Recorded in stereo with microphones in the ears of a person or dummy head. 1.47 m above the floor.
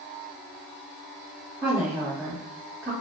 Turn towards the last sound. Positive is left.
turn(degrees=-10)  # may be behind; listen again after turning